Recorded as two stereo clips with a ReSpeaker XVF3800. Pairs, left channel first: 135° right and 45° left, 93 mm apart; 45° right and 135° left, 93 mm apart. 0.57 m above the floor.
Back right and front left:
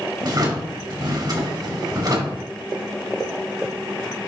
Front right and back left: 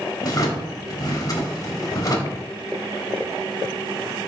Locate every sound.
0.2 s a drawer: 5° left, 1.2 m